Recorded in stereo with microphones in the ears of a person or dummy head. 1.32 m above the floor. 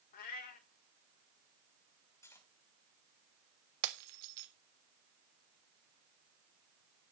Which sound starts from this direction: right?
Breaking glass, at 3.8 s.